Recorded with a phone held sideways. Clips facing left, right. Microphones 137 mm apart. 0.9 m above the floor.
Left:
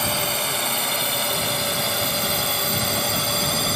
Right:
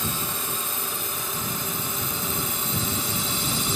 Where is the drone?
75° left (ahead or behind); by 3.8 s 65° left (ahead or behind).